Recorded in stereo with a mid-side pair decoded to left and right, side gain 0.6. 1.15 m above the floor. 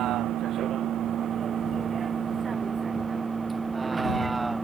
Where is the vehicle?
55° right; by 4.6 s 15° right.